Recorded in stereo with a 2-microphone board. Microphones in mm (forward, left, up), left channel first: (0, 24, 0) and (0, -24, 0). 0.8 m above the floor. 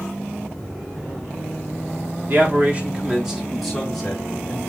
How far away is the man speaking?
About 1.2 m.